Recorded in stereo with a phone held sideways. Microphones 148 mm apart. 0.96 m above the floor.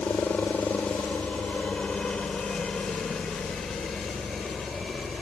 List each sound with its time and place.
0.0 s a helicopter: 10° left (ahead or behind); by 5.2 s centre (ahead or behind)